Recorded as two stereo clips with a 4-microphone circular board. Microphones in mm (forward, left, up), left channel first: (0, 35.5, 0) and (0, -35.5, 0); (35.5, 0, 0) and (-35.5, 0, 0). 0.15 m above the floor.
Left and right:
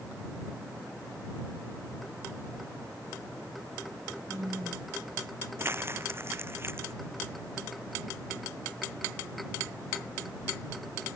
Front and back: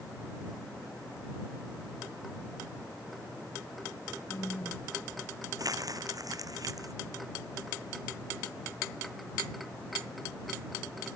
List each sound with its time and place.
4.3 s a woman speaking: 45° right
5.6 s crumpling: 145° right